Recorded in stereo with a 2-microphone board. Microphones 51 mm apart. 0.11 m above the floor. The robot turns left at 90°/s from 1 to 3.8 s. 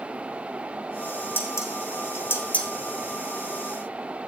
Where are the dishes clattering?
45° left (ahead or behind), 3.5 m; by 2.7 s 15° left (ahead or behind), 3.5 m.